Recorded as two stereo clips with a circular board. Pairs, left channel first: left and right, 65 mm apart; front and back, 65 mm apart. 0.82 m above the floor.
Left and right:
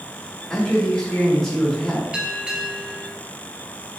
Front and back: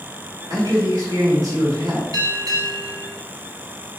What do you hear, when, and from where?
0.5 s a man speaking: 175° left, 3 m
2.1 s a bell: 165° right, 1.3 m